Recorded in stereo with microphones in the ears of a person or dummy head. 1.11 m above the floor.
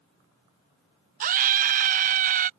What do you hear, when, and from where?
1.2 s a scream: 35° right (ahead or behind)